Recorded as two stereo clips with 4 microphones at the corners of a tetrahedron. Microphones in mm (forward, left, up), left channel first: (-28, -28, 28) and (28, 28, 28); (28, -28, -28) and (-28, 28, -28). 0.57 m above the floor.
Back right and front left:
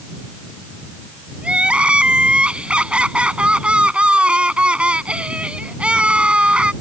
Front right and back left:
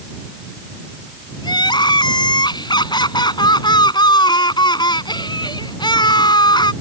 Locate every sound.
1.4 s crying: 30° right